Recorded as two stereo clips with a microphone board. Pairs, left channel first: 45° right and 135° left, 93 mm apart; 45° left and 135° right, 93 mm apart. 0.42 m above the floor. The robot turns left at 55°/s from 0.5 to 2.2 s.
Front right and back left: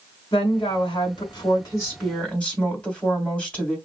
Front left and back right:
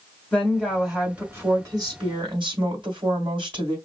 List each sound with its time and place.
0.3 s a woman speaking: 25° right, 2.5 m; by 3.8 s 120° right, 2.5 m